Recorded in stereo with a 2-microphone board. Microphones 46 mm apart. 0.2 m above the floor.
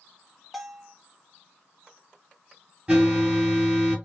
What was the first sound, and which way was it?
A bell, 5° right (ahead or behind).